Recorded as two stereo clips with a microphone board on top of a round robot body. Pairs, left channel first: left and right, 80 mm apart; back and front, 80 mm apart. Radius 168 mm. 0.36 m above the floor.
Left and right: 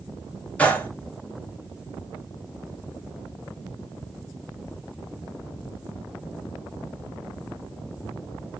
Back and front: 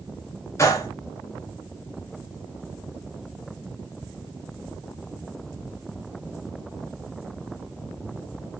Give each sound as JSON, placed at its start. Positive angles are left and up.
{"t": 0.6, "sound": "a gunshot", "azimuth_deg": 155, "distance_m": 1.7}